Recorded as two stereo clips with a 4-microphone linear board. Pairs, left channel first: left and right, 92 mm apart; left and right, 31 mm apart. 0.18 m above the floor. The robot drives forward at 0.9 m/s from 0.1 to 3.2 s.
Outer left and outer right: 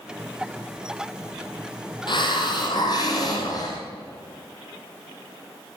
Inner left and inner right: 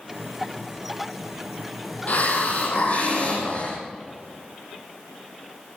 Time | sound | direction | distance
2.1 | a hiss | 55° left (ahead or behind) | 3.5 m